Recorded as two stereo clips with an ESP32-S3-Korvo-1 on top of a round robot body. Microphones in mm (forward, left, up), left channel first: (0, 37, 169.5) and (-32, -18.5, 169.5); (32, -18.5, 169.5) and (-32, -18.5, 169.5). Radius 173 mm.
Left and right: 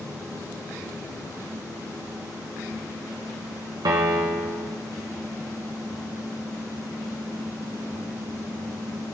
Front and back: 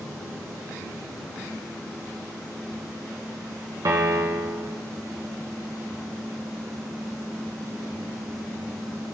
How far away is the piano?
About 0.7 m.